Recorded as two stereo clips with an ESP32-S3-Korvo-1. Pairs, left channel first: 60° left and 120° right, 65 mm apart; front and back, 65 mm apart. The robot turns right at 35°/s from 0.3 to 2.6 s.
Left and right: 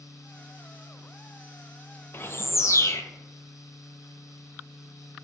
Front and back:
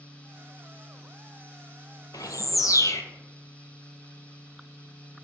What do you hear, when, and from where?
2.1 s a bird: 5° left, 0.6 m; by 3.0 s 25° left, 0.6 m